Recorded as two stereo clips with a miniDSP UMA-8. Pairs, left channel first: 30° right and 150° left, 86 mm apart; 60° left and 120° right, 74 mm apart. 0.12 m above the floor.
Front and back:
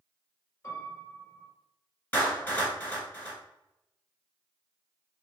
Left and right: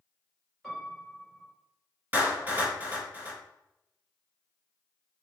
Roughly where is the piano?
Ahead right.